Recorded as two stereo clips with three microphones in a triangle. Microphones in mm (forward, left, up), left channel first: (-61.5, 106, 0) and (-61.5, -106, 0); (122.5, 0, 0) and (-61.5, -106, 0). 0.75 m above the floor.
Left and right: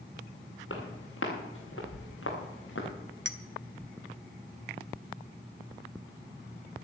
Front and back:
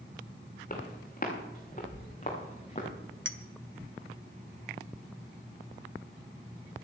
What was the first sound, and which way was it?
Footsteps, 80° left.